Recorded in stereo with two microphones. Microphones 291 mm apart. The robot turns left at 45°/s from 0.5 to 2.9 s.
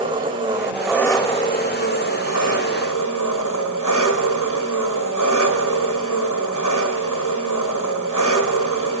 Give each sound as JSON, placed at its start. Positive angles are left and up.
{"t": 0.0, "sound": "an engine running", "azimuth_deg": -165, "distance_m": 2.0}